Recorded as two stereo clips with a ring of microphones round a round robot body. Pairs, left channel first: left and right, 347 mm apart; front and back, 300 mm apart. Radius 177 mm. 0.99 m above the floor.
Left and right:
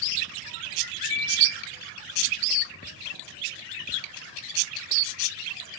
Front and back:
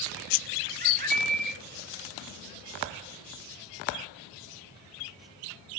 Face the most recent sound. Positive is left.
turn(degrees=120)